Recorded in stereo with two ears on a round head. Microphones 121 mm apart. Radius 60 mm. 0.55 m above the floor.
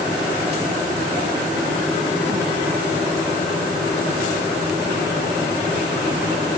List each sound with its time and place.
Only background noise.